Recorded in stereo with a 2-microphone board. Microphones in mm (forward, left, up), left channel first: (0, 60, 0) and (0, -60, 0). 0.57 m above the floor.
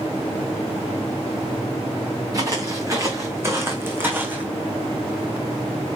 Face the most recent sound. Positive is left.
turn(degrees=-15)  # may be behind; listen again after turning